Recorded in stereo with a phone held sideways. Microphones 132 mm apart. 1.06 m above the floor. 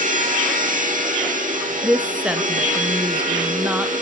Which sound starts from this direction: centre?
A woman speaking, at 1.8 s.